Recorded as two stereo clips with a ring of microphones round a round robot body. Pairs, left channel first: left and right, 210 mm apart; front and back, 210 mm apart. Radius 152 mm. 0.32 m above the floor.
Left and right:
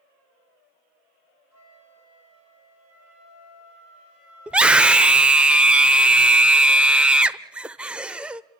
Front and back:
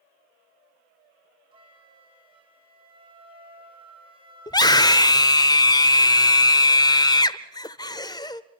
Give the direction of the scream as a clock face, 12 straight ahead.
12 o'clock.